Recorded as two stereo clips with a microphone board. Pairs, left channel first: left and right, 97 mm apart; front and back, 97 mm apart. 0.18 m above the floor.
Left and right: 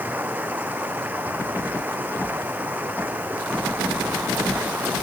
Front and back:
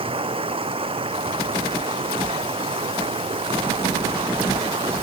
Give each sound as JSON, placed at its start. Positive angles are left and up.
{"t": 0.0, "sound": "running water", "azimuth_deg": -160}